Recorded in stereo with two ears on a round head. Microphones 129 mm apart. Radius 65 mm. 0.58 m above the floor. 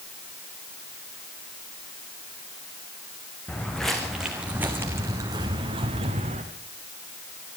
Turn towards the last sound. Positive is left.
turn(degrees=-45)  # may be behind; listen again after turning